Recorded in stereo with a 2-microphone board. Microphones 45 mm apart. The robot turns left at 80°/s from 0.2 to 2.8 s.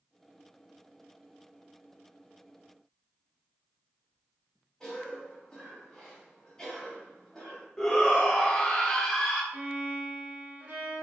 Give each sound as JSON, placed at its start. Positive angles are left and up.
{"t": 4.8, "sound": "a cough", "side_deg": 10, "distance_m": 1.0}
{"t": 7.8, "sound": "a shout", "side_deg": 10, "distance_m": 0.7}
{"t": 9.5, "sound": "a violin", "side_deg": -30, "distance_m": 0.9}